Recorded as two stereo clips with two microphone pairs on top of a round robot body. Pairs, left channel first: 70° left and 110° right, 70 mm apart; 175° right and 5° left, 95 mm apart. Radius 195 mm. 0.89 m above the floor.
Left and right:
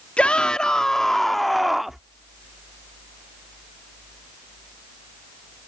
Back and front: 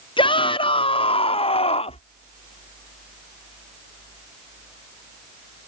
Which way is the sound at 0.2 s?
150° left.